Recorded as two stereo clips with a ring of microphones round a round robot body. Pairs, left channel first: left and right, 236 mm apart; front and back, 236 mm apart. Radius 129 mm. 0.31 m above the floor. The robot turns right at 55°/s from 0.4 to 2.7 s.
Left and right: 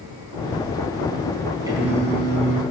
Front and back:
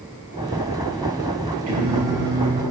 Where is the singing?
165° right, 3.5 m; by 2.6 s 115° right, 3.5 m.